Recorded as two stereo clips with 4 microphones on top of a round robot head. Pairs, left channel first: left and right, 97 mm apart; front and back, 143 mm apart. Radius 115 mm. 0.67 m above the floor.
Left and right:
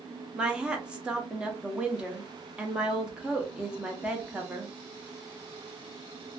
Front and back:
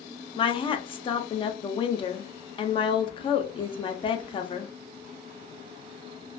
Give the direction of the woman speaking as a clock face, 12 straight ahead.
1 o'clock.